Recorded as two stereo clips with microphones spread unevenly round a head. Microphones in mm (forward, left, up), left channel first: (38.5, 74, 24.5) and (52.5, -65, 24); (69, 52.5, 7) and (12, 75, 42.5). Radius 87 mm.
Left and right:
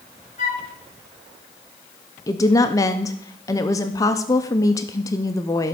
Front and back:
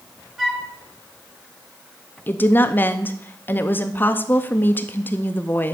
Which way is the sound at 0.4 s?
125° left.